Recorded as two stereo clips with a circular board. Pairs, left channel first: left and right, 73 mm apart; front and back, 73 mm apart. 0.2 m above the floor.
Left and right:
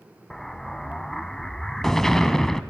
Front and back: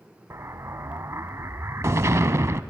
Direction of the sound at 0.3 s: 170° left.